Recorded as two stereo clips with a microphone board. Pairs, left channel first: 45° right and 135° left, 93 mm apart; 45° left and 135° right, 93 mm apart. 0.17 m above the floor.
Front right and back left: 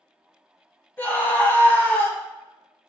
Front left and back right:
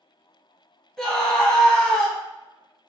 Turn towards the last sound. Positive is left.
turn(degrees=-30)